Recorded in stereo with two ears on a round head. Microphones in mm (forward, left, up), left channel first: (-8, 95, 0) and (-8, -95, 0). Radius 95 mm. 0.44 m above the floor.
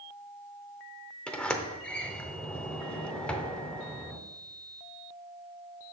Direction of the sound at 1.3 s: 5° left (ahead or behind).